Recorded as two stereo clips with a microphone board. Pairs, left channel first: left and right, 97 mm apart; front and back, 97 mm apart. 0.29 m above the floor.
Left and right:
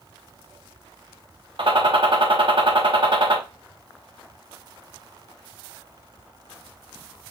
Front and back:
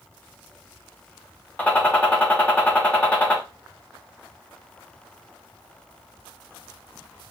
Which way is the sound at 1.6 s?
75° right.